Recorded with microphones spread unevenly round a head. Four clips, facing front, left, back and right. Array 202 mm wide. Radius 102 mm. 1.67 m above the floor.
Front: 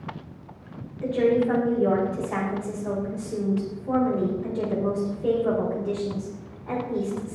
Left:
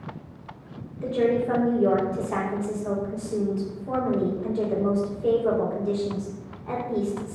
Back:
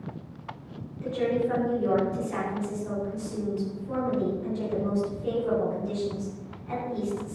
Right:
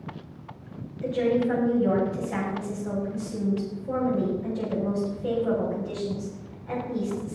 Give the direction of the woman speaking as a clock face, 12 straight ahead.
11 o'clock.